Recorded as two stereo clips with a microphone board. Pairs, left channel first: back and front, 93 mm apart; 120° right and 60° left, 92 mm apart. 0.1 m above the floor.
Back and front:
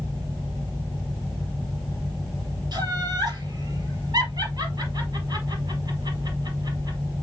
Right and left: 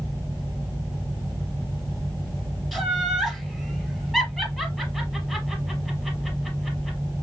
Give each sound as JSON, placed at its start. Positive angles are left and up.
{"t": 2.7, "sound": "laughter", "azimuth_deg": -30, "distance_m": 2.5}